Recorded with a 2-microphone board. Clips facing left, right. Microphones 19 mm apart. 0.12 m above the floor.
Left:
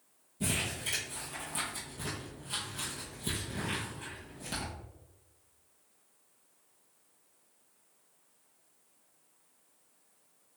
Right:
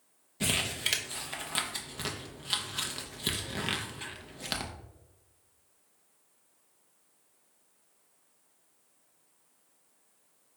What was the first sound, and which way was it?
Crumpling, 55° right (ahead or behind).